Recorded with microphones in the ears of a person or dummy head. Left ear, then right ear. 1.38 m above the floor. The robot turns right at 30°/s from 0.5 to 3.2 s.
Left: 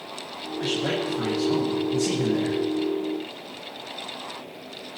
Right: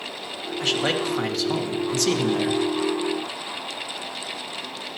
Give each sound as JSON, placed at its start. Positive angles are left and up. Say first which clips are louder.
{"t": 0.6, "sound": "a man speaking", "louder": "right 3 dB", "azimuth_deg": -140, "distance_m": 1.5}